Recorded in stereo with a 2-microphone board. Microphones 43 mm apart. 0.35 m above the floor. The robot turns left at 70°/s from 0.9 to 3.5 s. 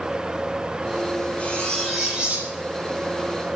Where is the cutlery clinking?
40° left, 5 m; by 2.5 s 40° right, 5 m.